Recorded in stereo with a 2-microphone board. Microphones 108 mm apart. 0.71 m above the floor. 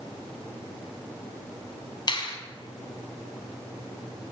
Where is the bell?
No bell in this recording.